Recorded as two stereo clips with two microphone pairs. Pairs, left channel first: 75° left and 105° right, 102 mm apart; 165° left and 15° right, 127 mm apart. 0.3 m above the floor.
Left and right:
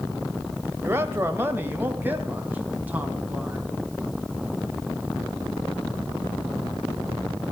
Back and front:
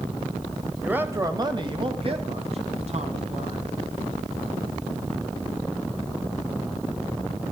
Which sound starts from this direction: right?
A man speaking, at 0.8 s.